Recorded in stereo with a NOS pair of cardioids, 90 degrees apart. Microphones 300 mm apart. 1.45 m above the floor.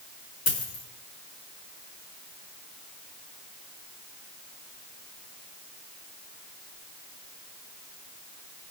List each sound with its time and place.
0.5 s a dropped coin: 70° left, 4 m